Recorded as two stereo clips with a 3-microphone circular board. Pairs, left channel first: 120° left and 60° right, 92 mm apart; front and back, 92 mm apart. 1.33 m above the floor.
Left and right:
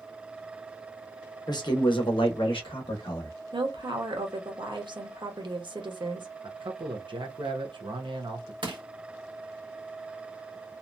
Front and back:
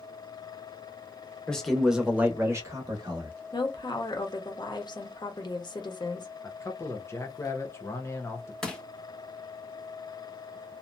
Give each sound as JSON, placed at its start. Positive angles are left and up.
{"t": 1.5, "sound": "a man speaking", "azimuth_deg": 80, "distance_m": 1.0}
{"t": 3.5, "sound": "a woman speaking", "azimuth_deg": -35, "distance_m": 1.0}
{"t": 6.4, "sound": "a man speaking", "azimuth_deg": -55, "distance_m": 0.6}
{"t": 8.6, "sound": "crushing", "azimuth_deg": -85, "distance_m": 1.2}